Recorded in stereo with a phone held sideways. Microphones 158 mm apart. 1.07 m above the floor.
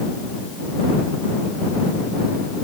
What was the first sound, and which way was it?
Only background noise.